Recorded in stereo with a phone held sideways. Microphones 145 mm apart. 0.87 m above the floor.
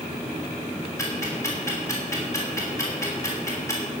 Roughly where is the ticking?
Left.